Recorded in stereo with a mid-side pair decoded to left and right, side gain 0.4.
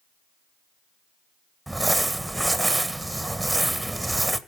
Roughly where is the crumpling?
Ahead.